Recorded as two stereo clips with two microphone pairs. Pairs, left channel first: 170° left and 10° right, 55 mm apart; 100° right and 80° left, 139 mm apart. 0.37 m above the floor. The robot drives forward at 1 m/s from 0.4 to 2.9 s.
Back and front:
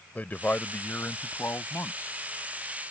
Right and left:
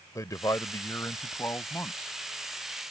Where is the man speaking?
150° right; by 2.1 s 170° right.